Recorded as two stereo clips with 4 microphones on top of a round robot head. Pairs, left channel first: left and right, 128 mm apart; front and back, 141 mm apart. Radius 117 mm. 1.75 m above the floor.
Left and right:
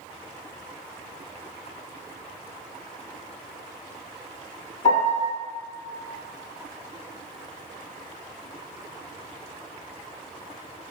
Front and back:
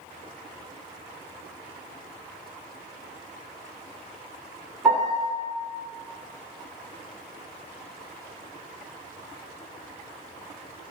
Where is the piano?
105° left, 1.4 m.